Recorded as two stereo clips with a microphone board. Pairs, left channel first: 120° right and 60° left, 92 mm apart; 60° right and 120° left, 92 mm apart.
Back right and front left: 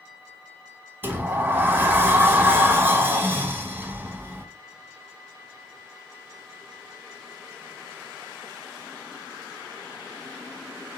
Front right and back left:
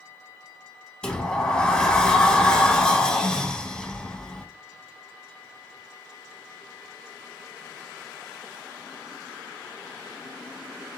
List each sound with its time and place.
1.0 s a sliding door: 15° left, 0.6 m